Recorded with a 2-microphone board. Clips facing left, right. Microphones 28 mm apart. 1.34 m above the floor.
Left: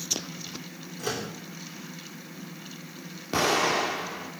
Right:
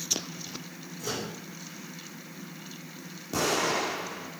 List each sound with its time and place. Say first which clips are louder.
1.0 s a microwave: left 2 dB; 70° left (ahead or behind), 2.5 m
3.3 s an explosion: left 3 dB; 45° left (ahead or behind), 1.2 m